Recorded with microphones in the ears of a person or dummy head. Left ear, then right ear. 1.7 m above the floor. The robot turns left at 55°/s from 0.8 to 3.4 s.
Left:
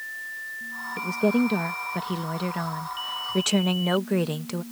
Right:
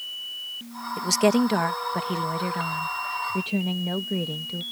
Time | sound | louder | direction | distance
1.0 | a woman speaking | right 3 dB | 95° right | ?